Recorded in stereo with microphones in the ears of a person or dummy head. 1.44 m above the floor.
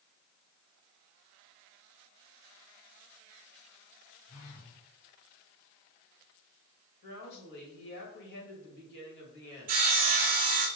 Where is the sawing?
40° right (ahead or behind), 0.6 m.